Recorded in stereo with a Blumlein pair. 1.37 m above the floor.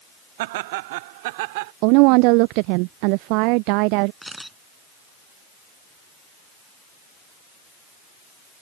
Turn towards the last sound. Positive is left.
turn(degrees=-5)